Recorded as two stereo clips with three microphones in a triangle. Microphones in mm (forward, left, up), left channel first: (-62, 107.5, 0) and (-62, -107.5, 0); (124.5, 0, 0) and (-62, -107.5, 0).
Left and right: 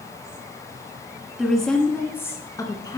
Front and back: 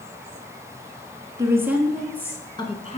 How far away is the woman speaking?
About 1.1 m.